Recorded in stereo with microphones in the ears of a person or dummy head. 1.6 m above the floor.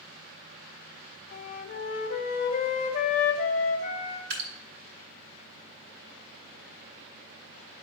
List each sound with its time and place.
1.3 s a flute: 45° left (ahead or behind), 0.9 m
4.3 s dripping: 70° right (ahead or behind), 3 m